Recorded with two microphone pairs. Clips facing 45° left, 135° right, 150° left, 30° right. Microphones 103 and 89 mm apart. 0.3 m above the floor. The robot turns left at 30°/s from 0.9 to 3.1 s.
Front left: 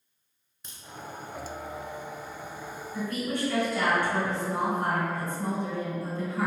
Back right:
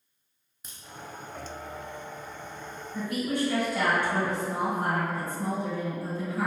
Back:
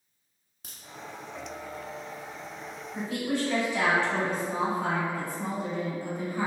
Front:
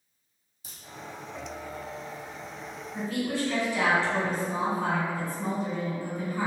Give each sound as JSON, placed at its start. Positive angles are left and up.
{"t": 0.6, "sound": "a crack", "azimuth_deg": 140, "distance_m": 0.8}
{"t": 2.9, "sound": "a woman speaking", "azimuth_deg": -170, "distance_m": 1.2}